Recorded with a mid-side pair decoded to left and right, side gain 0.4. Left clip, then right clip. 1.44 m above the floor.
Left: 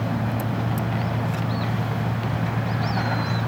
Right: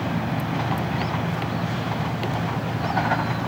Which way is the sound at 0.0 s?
25° left.